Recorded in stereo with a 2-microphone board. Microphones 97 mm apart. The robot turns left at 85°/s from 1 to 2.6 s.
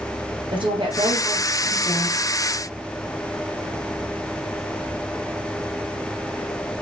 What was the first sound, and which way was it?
A woman speaking, 90° right.